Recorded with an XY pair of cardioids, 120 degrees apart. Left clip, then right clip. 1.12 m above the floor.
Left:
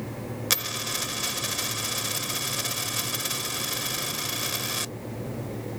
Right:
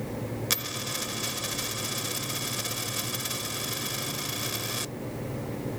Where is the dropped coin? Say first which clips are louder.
Left 4 dB; 20° left.